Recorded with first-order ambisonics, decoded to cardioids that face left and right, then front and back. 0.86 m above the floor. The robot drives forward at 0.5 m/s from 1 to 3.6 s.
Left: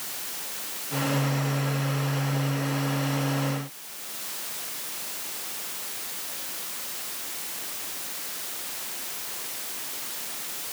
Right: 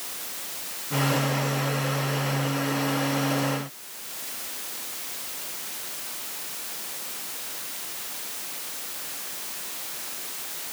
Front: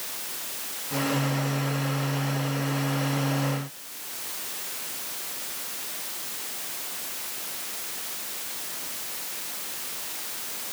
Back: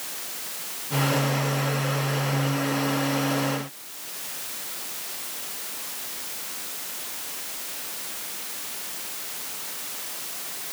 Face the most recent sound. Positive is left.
No sound to turn to.